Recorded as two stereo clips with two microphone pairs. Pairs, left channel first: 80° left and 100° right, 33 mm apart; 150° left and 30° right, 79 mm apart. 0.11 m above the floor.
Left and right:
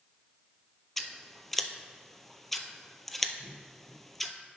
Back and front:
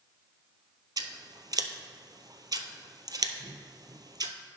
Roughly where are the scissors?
Ahead.